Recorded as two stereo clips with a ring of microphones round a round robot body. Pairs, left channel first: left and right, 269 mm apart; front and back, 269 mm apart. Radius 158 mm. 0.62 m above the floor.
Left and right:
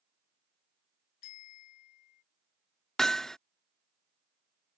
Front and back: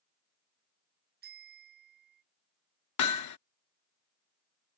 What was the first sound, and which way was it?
A bicycle bell, 120° left.